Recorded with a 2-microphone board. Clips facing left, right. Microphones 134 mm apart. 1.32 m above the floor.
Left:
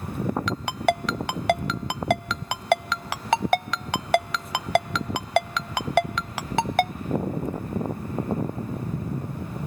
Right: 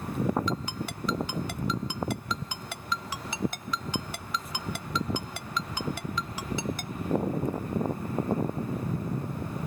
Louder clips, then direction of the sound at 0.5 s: Left 9 dB; 75° left (ahead or behind).